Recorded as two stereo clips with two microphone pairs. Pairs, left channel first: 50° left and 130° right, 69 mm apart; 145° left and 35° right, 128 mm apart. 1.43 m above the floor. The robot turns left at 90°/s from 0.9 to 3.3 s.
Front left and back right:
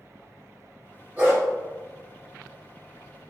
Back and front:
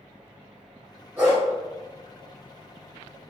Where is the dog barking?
95° right, 1.3 m; by 1.4 s 120° right, 1.3 m.